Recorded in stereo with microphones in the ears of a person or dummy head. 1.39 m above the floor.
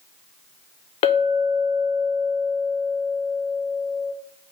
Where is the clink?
30° left (ahead or behind), 0.5 m.